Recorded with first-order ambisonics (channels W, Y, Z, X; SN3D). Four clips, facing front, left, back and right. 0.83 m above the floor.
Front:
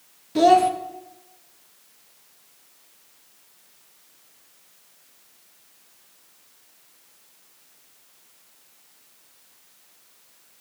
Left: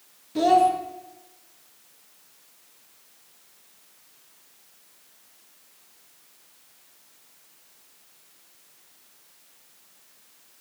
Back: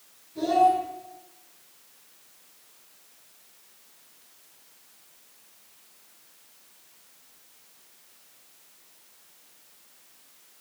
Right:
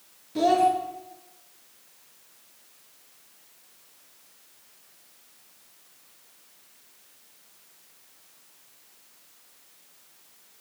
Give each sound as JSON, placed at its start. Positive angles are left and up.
{"t": 0.3, "sound": "a child speaking", "azimuth_deg": 5, "distance_m": 0.5}